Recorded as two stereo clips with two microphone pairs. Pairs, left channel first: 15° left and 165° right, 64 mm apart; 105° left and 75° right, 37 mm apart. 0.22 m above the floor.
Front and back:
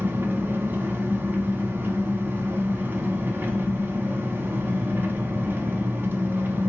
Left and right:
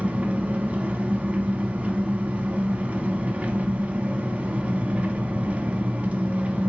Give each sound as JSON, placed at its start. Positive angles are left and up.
{"t": 0.0, "sound": "an engine running", "azimuth_deg": -125, "distance_m": 0.8}